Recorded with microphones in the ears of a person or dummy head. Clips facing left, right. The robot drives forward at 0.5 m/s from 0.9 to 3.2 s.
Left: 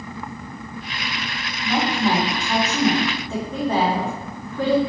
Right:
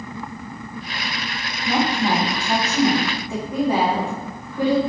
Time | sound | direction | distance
1.6 | a woman speaking | 20° right (ahead or behind) | 1.1 m